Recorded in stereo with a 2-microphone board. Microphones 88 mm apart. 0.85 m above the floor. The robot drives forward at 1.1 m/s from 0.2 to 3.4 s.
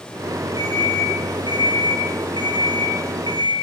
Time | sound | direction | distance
0.6 | an alarm clock | 55° right (ahead or behind) | 9.5 m